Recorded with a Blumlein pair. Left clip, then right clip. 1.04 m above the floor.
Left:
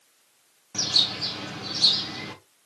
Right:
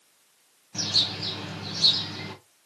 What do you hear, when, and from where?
0.7 s a bird: 10° left, 3 m